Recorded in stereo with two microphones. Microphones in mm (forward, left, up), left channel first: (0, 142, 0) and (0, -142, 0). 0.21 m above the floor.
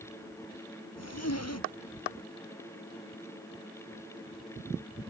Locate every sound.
1.0 s a zipper: 65° left (ahead or behind)